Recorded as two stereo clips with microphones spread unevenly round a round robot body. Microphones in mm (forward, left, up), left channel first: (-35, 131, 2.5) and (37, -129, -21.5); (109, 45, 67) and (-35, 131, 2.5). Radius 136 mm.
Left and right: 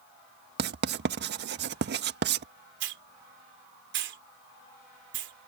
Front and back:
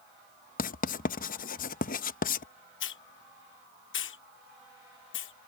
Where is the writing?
80° right.